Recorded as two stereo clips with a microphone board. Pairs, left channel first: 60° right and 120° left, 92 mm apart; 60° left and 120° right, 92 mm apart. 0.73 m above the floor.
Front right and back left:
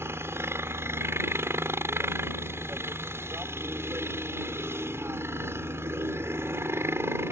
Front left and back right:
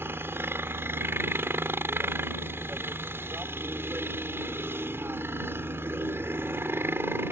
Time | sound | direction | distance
0.0 | a helicopter | straight behind | ?